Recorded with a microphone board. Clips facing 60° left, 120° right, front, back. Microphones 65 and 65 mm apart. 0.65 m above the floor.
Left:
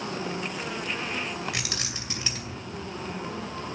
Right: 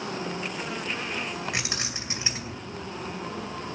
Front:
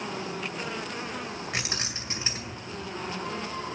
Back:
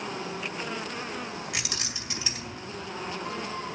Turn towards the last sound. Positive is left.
turn(degrees=-55)